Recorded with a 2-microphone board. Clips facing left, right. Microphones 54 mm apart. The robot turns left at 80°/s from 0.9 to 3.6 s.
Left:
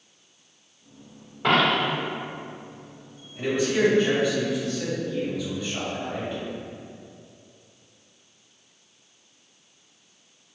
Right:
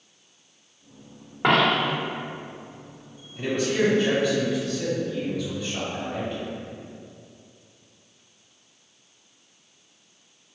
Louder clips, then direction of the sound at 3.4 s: Left 1 dB; 15° left (ahead or behind).